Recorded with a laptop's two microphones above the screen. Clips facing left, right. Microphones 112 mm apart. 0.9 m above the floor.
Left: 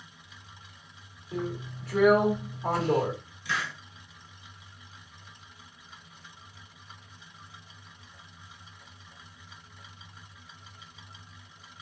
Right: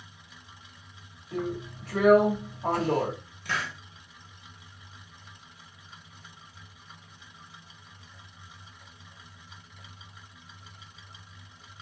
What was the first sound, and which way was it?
A drill, 65° right (ahead or behind).